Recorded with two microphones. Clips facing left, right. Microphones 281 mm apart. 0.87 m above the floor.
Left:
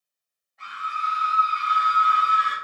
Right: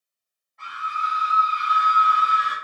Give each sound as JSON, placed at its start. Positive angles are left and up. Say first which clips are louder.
{"t": 0.6, "sound": "a scream", "louder": "right 2 dB", "side_deg": 5, "distance_m": 2.0}